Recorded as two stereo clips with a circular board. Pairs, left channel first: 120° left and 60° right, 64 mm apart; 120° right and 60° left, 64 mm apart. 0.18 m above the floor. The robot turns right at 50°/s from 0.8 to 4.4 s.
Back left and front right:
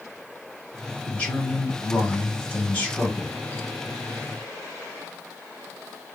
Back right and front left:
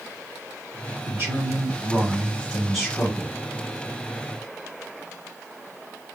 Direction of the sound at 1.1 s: 65° left.